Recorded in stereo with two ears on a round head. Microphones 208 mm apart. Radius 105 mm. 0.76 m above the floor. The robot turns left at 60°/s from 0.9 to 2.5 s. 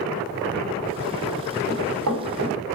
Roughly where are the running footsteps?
Right.